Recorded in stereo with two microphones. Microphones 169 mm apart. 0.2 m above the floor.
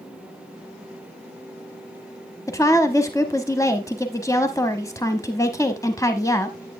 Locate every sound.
2.5 s a woman speaking: 20° left (ahead or behind), 1.0 m